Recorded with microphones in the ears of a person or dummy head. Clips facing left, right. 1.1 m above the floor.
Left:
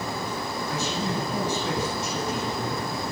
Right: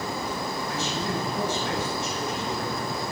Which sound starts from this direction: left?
A man speaking, at 0.7 s.